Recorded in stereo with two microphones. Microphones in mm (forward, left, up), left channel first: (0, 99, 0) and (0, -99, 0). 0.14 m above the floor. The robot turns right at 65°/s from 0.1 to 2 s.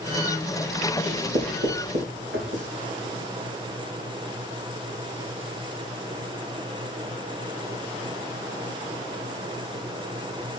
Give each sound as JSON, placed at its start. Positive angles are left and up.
{"t": 1.1, "sound": "writing", "side_deg": -50, "distance_m": 5.5}